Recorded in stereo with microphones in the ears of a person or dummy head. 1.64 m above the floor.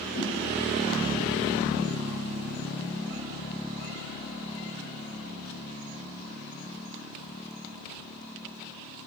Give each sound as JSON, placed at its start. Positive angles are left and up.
{"t": 0.1, "sound": "a whoosh", "side_deg": 45, "distance_m": 1.8}